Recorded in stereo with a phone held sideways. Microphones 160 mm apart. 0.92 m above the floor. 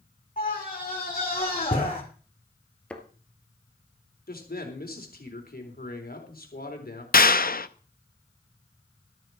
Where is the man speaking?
75° left (ahead or behind), 3.5 m.